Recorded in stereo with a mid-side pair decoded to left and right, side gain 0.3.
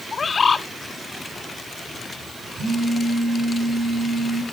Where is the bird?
55° left, 0.8 m.